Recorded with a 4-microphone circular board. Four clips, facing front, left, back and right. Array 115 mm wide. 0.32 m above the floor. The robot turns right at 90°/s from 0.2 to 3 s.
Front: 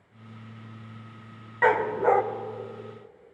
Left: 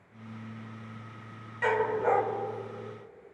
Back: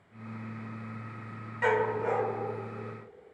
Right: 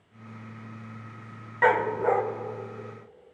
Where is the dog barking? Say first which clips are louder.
Right 4 dB, front 5 dB; 45° right, 0.6 m; by 2.2 s 10° left, 0.6 m.